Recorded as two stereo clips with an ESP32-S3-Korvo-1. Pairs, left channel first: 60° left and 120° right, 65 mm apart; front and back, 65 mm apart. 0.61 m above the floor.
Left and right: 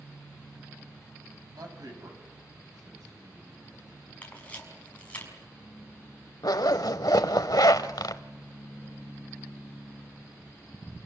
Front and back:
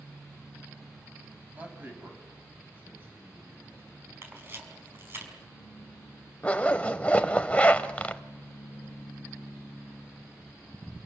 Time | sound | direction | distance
1.5 | a man speaking | 115° right | 5 m
4.2 | a camera shutter | 130° left | 5.5 m
6.4 | a zipper | 70° left | 1.0 m